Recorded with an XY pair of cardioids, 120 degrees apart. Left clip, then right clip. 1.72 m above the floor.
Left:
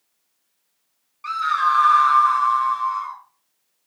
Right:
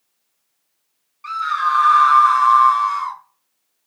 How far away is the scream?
About 0.9 m.